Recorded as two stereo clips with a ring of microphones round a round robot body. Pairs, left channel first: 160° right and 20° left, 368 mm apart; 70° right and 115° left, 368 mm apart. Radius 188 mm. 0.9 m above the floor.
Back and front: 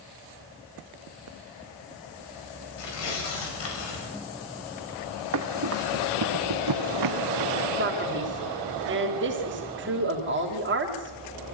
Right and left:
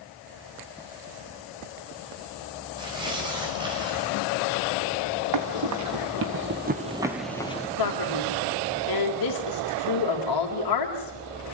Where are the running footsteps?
75° left, 2.5 m; by 7.7 s 5° right, 1.2 m.